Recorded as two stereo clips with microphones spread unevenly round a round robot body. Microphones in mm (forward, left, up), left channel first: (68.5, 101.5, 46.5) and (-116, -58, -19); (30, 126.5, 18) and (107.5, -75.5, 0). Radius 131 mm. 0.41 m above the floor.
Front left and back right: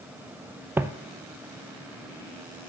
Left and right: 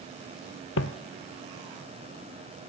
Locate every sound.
0.8 s footsteps: 130° left, 0.7 m